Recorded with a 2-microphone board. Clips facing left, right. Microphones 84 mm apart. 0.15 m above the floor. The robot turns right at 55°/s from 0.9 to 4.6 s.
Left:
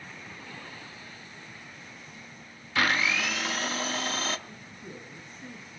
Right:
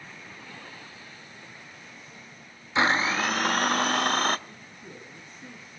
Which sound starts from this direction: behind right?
A blender, at 2.8 s.